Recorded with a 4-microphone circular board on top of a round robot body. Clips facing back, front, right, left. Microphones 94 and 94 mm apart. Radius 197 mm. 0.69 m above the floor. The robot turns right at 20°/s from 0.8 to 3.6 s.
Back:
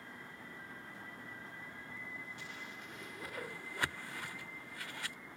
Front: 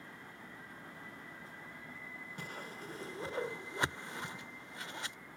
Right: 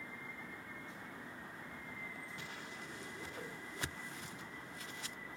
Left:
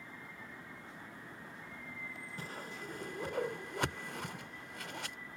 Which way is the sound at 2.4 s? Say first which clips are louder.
Front 3 dB, left 4 dB; 45° left.